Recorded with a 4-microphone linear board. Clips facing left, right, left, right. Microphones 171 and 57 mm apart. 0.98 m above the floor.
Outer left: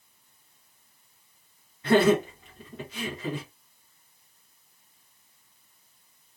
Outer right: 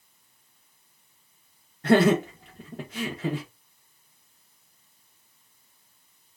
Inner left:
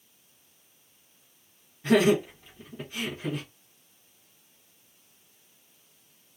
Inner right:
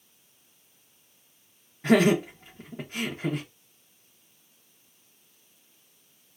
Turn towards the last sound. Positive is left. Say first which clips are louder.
# outer right 1 dB, inner right 1 dB
turn(degrees=-50)  # may be behind; listen again after turning